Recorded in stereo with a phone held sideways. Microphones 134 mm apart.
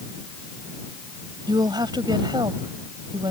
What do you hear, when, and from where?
1.5 s a woman speaking: 35° right (ahead or behind)